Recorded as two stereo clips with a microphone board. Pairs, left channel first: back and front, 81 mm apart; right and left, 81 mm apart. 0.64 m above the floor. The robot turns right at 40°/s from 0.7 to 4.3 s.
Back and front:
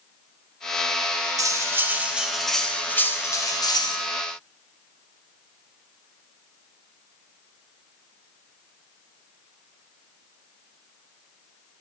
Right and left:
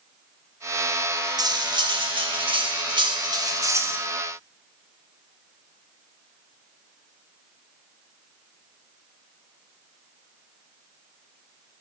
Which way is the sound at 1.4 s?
50° left.